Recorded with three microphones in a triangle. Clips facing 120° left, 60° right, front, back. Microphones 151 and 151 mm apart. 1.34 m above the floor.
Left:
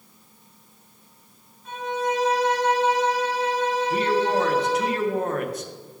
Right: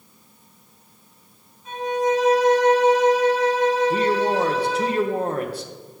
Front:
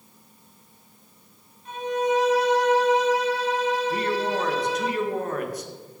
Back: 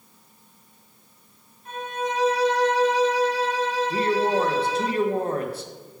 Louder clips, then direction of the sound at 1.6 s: Right 5 dB, front 5 dB; 135° right.